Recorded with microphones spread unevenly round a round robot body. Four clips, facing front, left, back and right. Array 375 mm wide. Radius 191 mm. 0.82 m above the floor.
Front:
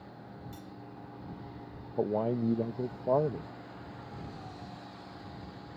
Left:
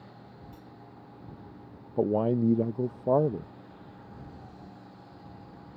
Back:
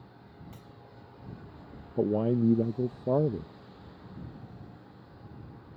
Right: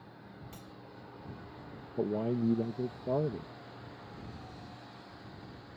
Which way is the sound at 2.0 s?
125° left.